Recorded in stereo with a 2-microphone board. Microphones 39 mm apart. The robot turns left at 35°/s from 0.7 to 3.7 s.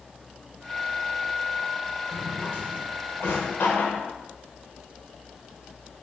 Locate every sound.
2.1 s a drawer: 50° left (ahead or behind), 0.9 m; by 4.0 s 70° left (ahead or behind), 0.9 m